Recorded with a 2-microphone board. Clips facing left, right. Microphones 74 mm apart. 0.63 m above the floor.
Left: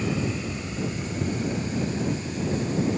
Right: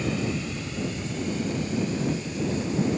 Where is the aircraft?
10° left (ahead or behind); by 3.0 s 35° left (ahead or behind).